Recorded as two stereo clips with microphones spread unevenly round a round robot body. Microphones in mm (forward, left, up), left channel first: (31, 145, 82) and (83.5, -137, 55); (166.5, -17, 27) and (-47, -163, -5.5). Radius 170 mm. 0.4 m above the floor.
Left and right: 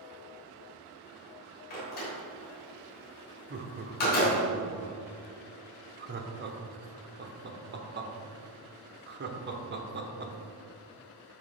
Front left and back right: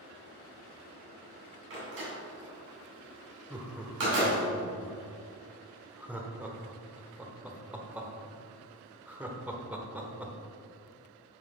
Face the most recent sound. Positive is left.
turn(degrees=-75)